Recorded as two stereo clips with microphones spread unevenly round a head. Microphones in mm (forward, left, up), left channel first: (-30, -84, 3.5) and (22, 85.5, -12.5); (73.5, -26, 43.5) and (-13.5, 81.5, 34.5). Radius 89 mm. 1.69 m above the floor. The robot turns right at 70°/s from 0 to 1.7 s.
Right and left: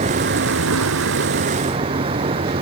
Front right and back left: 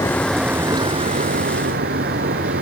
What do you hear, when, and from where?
0.0 s a vehicle: 15° left; by 2.6 s 135° left